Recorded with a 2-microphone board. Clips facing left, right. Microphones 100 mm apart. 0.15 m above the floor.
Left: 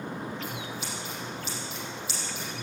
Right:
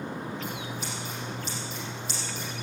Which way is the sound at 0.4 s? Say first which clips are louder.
Right 1 dB; 45° right (ahead or behind).